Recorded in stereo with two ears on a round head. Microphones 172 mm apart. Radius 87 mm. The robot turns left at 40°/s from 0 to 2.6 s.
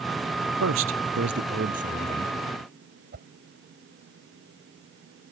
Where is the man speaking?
85° right; by 2.4 s 155° right.